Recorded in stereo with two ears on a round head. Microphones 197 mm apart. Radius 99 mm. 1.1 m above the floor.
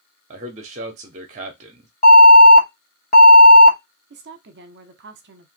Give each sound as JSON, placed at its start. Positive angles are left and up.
{"t": 0.3, "sound": "a man speaking", "side_deg": -35, "distance_m": 0.6}
{"t": 2.0, "sound": "an alarm", "side_deg": 35, "distance_m": 1.1}
{"t": 4.1, "sound": "a woman speaking", "side_deg": -50, "distance_m": 0.7}